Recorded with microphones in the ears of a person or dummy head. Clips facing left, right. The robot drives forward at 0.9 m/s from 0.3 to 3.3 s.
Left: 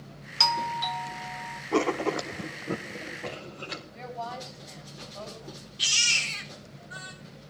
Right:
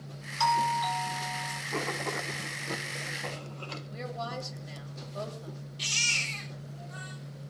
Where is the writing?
75° left (ahead or behind), 0.7 m; by 3.8 s 25° left (ahead or behind), 1.7 m.